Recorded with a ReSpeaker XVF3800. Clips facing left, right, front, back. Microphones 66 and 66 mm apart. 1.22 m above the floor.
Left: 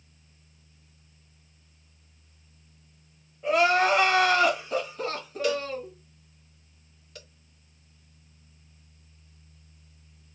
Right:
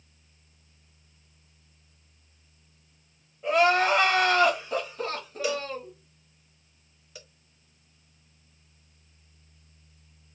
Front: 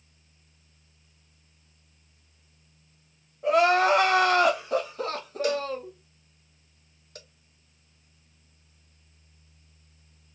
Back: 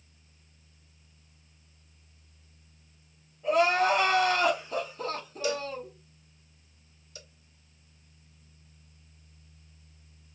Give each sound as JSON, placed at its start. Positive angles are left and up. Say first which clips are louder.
{"t": 3.4, "sound": "crying", "louder": "even, front 3 dB", "azimuth_deg": 0, "distance_m": 1.2}
{"t": 5.4, "sound": "a cowbell", "louder": "left 3 dB, front 3 dB", "azimuth_deg": -10, "distance_m": 0.7}